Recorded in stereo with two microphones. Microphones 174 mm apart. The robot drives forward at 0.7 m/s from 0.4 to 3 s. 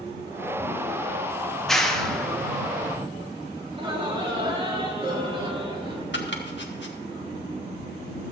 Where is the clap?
Centre (ahead or behind), 1.5 m; by 3.1 s 5° left (ahead or behind), 0.5 m.